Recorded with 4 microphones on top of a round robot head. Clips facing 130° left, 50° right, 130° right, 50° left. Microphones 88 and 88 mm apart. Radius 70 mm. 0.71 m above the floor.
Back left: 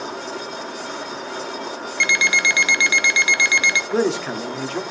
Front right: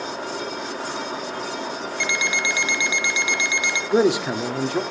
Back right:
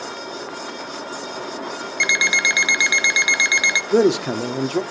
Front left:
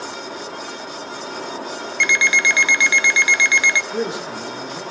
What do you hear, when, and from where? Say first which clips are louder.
2.0 s an alarm clock: back left 5 dB, front left 3 dB; 155° left, 0.8 m
3.9 s a man speaking: front right 5 dB, back right 8 dB; 130° right, 1.4 m